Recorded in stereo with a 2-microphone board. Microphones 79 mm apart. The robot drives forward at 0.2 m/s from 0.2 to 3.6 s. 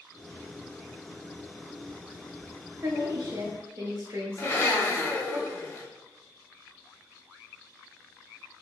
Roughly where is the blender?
Left.